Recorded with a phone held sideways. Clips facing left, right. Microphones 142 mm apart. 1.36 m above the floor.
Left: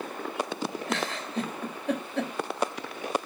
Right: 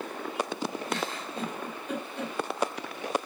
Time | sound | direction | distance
0.9 | a giggle | 90° left | 3 m